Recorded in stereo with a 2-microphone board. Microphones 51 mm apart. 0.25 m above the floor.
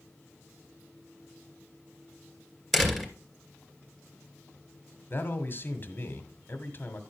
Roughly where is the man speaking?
Left.